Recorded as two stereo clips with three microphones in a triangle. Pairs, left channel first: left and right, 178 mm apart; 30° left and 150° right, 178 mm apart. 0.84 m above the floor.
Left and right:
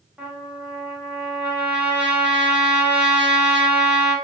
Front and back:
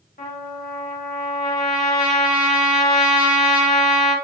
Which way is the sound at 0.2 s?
5° right.